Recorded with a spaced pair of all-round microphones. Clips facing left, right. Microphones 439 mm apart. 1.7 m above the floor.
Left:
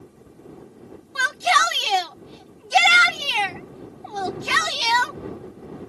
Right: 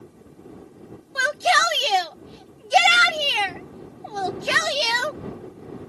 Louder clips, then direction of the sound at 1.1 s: Right 3 dB; 20° left (ahead or behind).